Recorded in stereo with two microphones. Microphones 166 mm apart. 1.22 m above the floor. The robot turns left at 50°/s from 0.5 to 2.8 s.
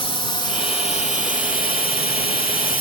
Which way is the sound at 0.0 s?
35° left (ahead or behind).